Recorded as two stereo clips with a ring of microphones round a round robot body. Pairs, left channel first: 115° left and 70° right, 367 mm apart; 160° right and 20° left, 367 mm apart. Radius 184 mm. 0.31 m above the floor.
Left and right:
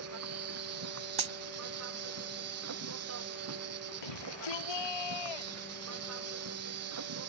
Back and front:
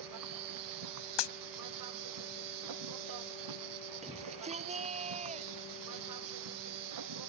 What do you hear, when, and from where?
0.0 s an insect: 15° right
1.2 s a dropped coin: 140° right
4.0 s a shout: 95° left